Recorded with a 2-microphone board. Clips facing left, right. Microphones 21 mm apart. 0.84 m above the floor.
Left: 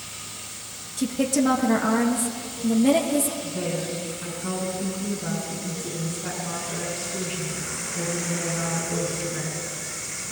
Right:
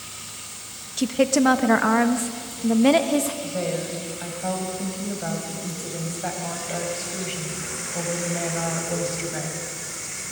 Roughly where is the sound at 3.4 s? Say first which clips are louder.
Right 1 dB; right.